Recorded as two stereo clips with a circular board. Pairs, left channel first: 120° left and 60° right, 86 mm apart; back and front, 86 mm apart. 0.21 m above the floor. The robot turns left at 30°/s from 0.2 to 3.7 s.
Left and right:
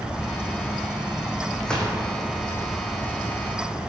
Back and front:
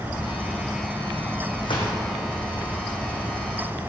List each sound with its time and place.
1.6 s a gunshot: 155° right, 2.5 m; by 1.9 s 165° right, 2.5 m